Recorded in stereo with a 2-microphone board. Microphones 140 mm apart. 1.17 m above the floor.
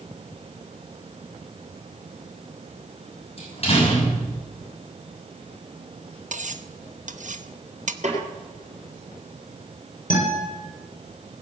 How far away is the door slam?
About 6 m.